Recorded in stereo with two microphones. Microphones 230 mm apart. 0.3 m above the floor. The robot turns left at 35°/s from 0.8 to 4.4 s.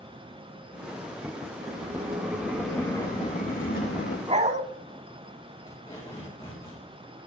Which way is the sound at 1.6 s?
145° right.